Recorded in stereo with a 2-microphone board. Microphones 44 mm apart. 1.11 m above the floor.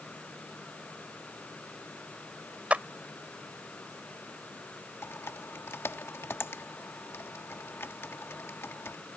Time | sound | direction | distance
2.7 | a clap | 30° right (ahead or behind) | ?
5.0 | typing on a keyboard | 65° left (ahead or behind) | ?